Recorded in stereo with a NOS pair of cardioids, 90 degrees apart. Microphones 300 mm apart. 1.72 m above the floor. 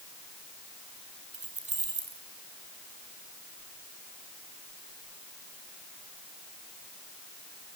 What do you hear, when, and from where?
1.3 s keys jangling: 25° right, 5 m